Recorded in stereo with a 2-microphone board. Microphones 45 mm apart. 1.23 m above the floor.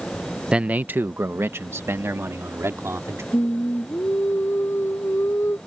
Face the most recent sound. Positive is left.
turn(degrees=70)  # may be behind; listen again after turning